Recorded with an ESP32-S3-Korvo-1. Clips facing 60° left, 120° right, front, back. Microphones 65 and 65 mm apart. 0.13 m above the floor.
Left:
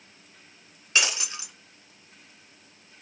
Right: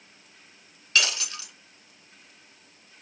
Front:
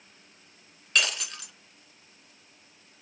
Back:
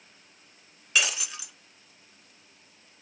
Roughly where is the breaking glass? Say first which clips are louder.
Even, even; left.